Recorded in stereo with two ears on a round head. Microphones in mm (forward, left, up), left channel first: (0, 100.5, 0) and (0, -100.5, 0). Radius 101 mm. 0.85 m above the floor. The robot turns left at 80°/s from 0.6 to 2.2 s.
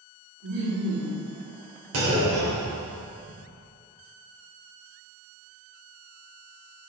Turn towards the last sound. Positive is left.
turn(degrees=-45)  # may be behind; listen again after turning